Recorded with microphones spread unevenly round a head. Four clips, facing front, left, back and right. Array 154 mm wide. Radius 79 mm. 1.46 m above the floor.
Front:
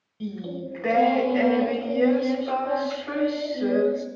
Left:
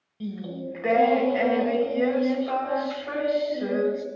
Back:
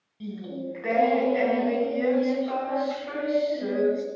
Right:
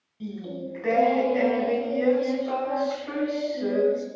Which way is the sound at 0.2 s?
45° left.